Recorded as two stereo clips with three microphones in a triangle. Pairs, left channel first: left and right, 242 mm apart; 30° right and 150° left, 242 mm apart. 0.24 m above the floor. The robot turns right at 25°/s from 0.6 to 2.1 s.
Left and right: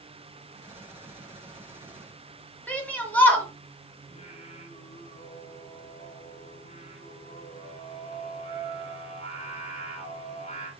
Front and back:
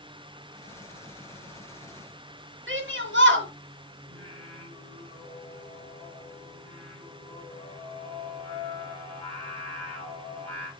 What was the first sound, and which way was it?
A shout, 170° left.